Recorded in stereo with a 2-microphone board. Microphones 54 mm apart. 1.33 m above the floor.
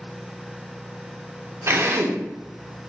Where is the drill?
50° right (ahead or behind), 0.7 m.